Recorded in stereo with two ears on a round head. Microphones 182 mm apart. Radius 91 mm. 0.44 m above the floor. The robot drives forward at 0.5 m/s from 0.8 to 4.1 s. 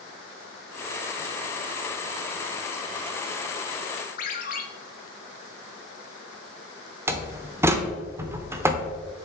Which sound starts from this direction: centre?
A door slam, at 7.1 s.